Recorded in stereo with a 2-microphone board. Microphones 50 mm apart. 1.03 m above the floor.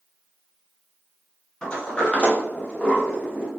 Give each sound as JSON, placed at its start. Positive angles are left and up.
{"t": 1.6, "sound": "a sliding door", "side_deg": 20, "distance_m": 0.6}